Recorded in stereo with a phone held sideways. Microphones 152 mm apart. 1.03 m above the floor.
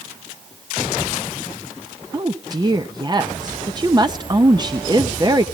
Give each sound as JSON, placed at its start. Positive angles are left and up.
{"t": 2.1, "sound": "a woman speaking", "side_deg": -30, "distance_m": 0.7}